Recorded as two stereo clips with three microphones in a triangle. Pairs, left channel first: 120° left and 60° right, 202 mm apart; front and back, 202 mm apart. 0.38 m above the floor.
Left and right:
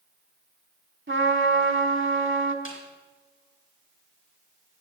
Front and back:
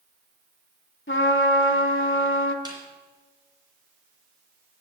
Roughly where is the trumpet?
Ahead right.